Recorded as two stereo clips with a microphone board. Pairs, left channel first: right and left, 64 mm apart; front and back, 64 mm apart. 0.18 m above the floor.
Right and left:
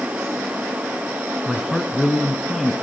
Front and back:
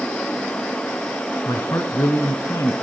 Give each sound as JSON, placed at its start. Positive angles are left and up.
{"t": 1.4, "sound": "a man speaking", "azimuth_deg": 0, "distance_m": 2.0}